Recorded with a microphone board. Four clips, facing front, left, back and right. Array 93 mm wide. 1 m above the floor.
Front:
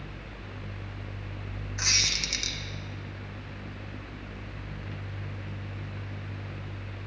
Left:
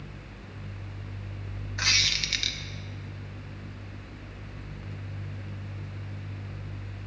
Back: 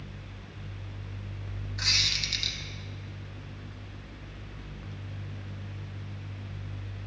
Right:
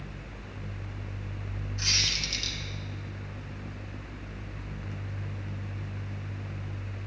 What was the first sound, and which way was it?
A squeak, 75° left.